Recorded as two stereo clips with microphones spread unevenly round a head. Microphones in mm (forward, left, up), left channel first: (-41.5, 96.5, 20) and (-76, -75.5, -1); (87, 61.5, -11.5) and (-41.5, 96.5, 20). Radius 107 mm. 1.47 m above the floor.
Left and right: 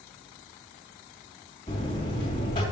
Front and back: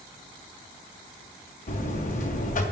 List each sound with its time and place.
1.7 s a buzzer: 10° left, 3 m